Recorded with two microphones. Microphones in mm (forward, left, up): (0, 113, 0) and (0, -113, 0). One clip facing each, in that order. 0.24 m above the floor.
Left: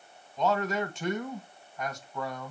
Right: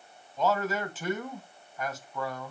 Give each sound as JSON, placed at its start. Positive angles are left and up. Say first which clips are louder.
{"t": 0.4, "sound": "a man speaking", "louder": "even", "side_deg": -5, "distance_m": 1.7}